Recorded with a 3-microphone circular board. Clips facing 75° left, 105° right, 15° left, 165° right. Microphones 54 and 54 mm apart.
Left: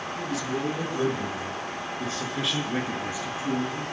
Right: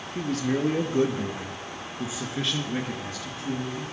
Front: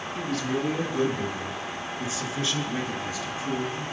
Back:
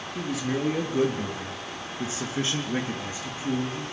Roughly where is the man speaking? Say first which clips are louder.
Right 5 dB, even; right.